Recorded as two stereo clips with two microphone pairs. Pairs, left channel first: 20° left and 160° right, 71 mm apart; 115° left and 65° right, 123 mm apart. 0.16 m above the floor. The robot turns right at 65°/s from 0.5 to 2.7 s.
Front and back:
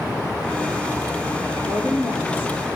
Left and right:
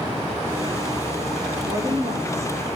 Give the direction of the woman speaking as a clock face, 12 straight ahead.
3 o'clock.